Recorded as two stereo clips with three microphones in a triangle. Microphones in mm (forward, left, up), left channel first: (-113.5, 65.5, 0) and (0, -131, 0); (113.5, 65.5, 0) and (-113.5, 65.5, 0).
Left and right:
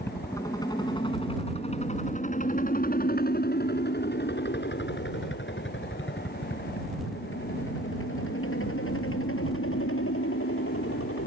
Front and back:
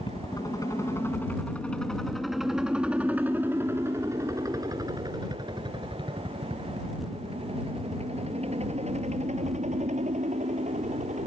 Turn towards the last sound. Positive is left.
turn(degrees=125)